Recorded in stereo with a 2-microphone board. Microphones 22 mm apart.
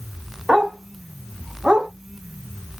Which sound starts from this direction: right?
A dog barking, at 0.5 s.